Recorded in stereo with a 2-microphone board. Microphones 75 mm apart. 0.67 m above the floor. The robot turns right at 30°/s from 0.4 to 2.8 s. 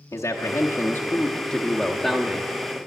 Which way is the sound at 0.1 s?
120° left.